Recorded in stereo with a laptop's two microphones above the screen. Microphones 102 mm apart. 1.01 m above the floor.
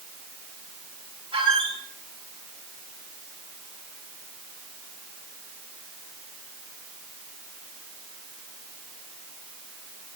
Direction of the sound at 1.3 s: 70° right (ahead or behind).